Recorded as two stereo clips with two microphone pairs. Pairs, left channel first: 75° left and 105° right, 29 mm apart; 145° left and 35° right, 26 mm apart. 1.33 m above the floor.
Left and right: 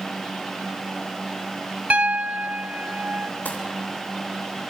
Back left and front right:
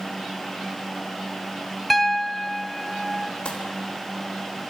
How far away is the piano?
About 0.9 m.